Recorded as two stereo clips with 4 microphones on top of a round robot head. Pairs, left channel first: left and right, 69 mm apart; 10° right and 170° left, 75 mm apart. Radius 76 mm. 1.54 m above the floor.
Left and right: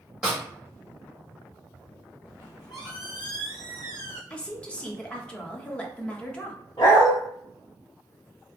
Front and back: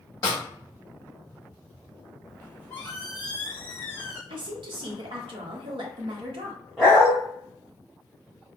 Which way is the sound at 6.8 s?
95° left.